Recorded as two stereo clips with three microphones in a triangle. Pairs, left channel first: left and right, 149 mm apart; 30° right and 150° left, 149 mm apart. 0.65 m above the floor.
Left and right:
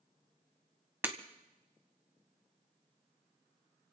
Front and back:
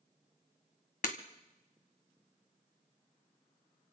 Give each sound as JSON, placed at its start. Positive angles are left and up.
{"t": 1.0, "sound": "breaking glass", "azimuth_deg": -15, "distance_m": 1.6}